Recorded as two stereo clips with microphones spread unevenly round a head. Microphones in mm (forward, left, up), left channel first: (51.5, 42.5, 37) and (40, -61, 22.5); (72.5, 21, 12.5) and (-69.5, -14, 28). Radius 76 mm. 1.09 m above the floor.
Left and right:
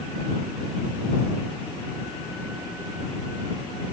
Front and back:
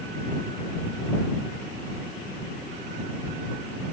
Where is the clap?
I don't hear a clap.